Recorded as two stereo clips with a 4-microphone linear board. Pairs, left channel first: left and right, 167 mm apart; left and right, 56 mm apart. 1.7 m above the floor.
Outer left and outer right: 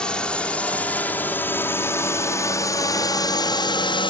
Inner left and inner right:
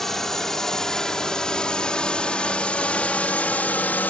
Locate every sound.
0.0 s a drone: 5° left (ahead or behind); by 4.1 s 30° left (ahead or behind)